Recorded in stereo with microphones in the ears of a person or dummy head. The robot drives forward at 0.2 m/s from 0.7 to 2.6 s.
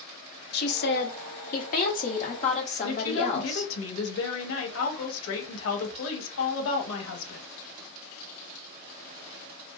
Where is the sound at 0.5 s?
45° left (ahead or behind), 0.5 m; by 3.7 s 30° left (ahead or behind), 0.7 m.